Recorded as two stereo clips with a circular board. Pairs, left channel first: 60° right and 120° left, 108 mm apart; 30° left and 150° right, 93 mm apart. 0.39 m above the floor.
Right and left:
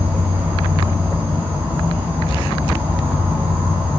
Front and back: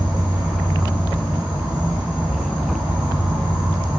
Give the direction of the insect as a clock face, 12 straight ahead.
6 o'clock.